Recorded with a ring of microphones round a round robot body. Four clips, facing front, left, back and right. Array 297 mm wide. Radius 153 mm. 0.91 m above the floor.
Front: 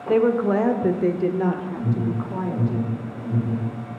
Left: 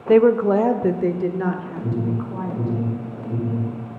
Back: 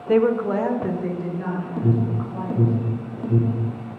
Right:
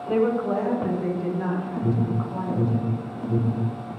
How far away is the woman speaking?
About 0.9 m.